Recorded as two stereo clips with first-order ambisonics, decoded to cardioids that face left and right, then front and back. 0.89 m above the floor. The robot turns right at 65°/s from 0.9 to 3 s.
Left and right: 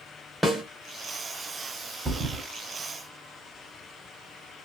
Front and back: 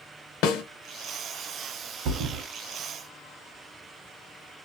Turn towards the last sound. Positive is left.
turn(degrees=-110)